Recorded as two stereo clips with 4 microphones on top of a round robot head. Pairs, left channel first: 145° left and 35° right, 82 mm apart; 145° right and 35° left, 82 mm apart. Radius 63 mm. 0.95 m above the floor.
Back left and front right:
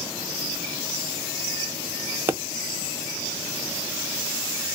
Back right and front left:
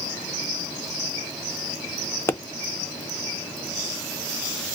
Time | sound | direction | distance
2.3 | a pop | 90° right | 0.6 m